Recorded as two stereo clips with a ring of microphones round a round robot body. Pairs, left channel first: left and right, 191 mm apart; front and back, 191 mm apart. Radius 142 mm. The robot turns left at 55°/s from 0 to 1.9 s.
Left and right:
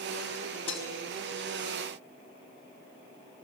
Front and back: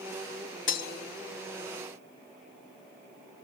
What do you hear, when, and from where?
0.7 s breaking glass: 20° left, 4 m; by 0.9 s 5° left, 4 m